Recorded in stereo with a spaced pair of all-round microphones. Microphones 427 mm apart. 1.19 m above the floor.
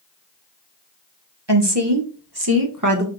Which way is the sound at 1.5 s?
70° right (ahead or behind).